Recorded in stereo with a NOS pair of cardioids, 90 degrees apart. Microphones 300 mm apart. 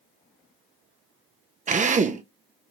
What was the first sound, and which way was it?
A drill, 25° right.